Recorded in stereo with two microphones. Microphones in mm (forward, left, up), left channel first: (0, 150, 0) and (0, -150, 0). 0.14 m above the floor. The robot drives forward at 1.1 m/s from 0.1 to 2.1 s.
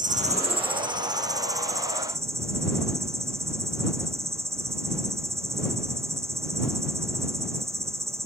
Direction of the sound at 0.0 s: 25° right (ahead or behind).